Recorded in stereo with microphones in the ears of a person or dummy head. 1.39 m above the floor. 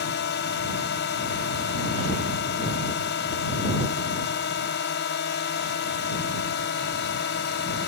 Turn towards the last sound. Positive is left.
turn(degrees=50)  # may be behind; listen again after turning